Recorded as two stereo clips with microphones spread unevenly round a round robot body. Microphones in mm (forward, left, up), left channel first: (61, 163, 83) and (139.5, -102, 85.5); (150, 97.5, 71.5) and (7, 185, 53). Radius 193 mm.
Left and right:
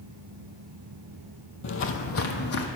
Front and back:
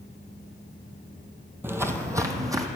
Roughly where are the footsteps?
Left.